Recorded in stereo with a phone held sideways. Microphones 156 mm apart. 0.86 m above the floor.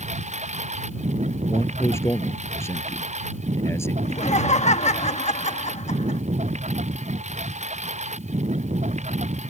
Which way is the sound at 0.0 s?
50° right (ahead or behind).